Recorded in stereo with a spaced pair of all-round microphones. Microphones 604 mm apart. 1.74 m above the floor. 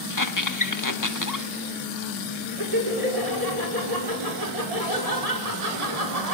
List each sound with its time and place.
0.1 s a squeak: 30° left (ahead or behind), 1.3 m
2.6 s laughter: 85° right, 5.5 m